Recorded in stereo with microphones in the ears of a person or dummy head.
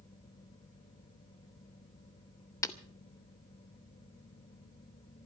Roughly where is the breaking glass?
Centre.